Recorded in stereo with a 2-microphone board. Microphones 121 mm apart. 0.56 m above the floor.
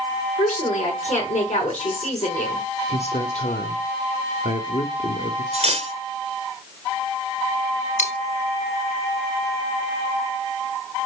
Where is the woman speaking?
80° left, 6.5 m.